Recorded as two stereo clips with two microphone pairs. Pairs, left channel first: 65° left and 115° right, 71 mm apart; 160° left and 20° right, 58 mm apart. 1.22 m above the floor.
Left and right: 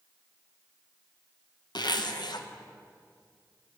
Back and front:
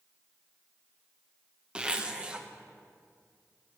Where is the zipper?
50° left, 0.6 m.